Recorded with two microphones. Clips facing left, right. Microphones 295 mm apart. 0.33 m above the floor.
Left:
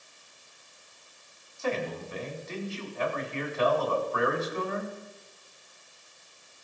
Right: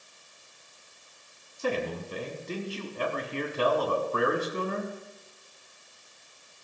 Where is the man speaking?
45° right (ahead or behind), 3 m.